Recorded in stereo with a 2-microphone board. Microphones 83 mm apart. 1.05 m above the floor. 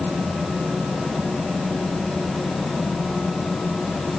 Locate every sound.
Only background noise.